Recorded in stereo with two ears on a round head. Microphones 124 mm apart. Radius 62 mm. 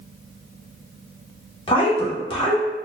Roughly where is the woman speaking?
Left.